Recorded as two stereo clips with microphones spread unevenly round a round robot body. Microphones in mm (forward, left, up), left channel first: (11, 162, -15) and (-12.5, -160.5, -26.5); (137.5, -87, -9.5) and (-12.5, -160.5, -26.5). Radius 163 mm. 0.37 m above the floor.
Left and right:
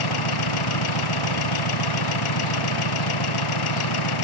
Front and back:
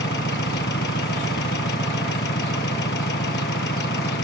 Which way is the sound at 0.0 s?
70° left.